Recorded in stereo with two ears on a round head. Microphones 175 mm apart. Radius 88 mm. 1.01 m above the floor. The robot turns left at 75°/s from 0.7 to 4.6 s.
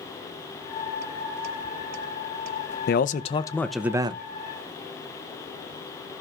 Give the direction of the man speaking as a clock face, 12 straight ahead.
10 o'clock.